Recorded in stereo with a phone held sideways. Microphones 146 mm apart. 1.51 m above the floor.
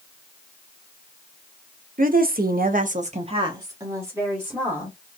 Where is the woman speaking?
70° right (ahead or behind), 0.7 m; by 5.0 s 5° right (ahead or behind), 1.4 m.